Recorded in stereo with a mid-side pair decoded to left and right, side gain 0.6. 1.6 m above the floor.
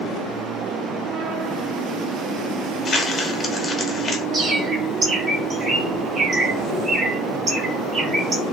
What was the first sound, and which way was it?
Crumpling, 25° left.